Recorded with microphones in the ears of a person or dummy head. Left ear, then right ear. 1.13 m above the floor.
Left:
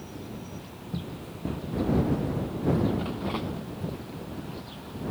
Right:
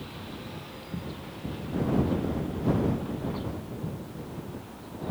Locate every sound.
0.9 s running footsteps: 75° left (ahead or behind)